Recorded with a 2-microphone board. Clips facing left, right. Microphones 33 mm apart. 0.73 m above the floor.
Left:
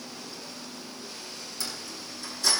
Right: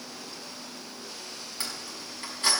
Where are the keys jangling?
40° right (ahead or behind), 5.5 m.